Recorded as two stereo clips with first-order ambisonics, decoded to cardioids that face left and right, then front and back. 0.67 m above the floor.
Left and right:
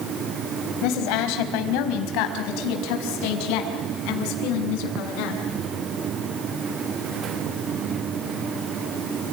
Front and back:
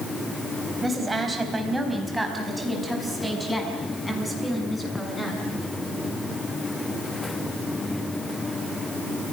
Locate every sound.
0.8 s a woman speaking: 105° left, 4 m; by 5.4 s 85° left, 7 m